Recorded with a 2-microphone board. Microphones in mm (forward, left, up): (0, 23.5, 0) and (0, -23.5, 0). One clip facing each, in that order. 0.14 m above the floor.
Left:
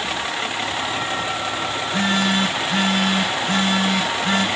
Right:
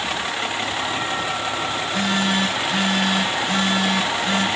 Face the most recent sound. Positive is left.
turn(degrees=55)  # may be behind; listen again after turning